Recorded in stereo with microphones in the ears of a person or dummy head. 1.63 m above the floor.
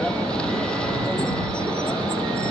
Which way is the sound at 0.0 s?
10° left (ahead or behind).